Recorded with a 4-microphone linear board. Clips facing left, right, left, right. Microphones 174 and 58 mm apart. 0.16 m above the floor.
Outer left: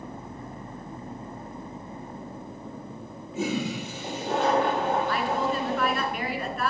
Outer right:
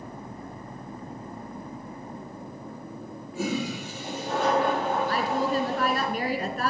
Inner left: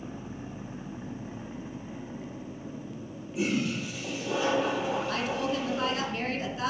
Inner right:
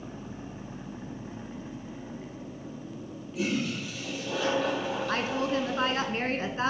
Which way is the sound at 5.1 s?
40° right (ahead or behind).